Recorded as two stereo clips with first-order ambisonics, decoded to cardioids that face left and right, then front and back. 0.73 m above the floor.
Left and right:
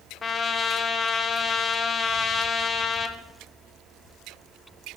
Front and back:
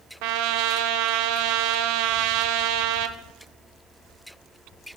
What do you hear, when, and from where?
0.2 s a trumpet: 160° left, 0.7 m